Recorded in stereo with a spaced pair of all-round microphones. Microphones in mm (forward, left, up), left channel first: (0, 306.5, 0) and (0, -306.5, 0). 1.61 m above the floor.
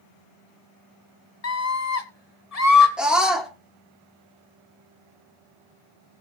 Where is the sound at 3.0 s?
Centre (ahead or behind), 3.5 m.